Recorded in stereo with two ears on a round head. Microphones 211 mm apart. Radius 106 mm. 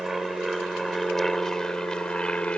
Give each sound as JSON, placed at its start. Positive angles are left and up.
{"t": 0.0, "sound": "an aircraft", "side_deg": 0}